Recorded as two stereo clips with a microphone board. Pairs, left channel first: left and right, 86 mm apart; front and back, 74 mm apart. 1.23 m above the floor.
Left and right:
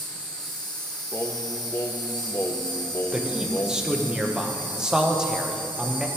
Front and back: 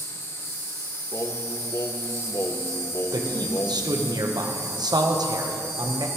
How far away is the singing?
About 0.6 m.